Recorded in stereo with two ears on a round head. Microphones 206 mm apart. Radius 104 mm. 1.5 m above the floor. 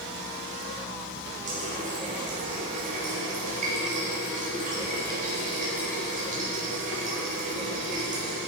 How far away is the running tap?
About 4.5 m.